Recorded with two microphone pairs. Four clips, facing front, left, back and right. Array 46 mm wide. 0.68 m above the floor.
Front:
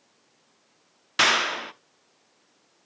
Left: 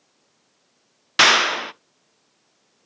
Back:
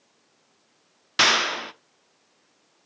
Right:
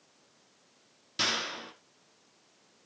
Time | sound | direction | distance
1.2 | a clap | 90° left | 0.6 m